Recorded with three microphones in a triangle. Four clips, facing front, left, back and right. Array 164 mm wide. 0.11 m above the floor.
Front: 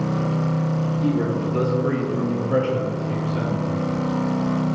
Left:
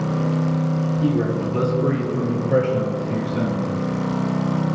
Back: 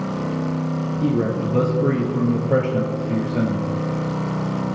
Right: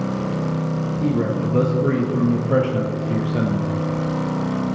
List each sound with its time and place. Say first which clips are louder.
1.0 s a man speaking: right 1 dB, back 2 dB; 170° right, 1.7 m; by 3.7 s 130° right, 2.5 m